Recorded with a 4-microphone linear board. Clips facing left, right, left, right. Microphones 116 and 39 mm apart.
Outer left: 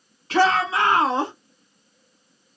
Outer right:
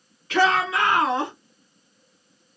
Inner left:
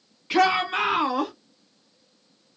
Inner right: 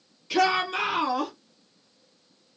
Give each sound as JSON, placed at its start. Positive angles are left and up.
{"t": 0.3, "sound": "a shout", "side_deg": 35, "distance_m": 1.9}